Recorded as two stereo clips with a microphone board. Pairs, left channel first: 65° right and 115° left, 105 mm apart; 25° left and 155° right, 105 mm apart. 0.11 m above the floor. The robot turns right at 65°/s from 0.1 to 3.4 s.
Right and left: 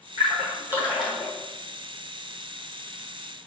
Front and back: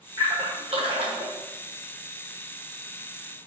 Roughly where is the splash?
Behind left.